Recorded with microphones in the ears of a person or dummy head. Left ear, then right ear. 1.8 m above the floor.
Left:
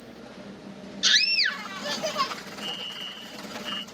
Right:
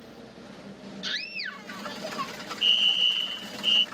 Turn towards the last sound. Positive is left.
turn(degrees=-75)  # may be behind; listen again after turning